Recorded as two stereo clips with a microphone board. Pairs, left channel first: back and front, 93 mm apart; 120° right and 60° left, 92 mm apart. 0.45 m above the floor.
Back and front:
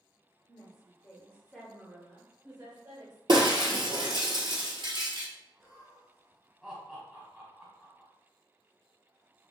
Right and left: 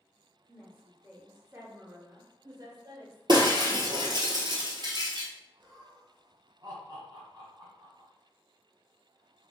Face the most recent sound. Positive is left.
turn(degrees=80)